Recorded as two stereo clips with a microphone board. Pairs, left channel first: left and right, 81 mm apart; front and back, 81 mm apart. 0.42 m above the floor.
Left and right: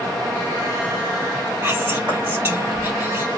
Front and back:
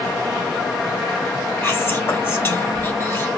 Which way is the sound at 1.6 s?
40° right.